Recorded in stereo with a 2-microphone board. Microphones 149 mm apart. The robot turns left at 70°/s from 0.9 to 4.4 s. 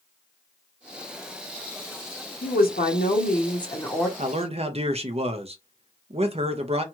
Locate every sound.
2.4 s a woman speaking: 115° left, 0.9 m; by 4.1 s 5° right, 0.9 m
4.2 s a man speaking: 50° right (ahead or behind), 0.6 m; by 6.8 s 40° right (ahead or behind), 0.6 m